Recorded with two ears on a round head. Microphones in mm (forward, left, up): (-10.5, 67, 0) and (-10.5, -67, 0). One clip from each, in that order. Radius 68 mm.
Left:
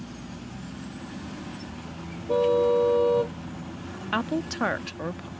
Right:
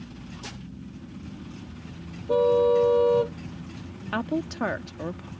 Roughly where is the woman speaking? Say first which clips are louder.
Left 1 dB; left.